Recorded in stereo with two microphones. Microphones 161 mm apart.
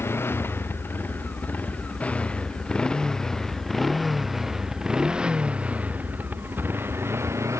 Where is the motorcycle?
15° left (ahead or behind); by 7.6 s 20° right (ahead or behind).